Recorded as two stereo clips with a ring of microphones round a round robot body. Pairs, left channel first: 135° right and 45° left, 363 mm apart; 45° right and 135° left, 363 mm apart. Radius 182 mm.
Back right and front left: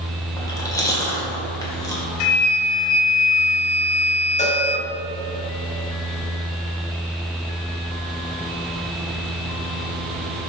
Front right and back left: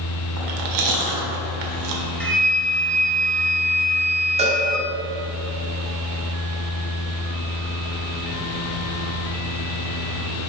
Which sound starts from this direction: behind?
A cowbell, at 4.4 s.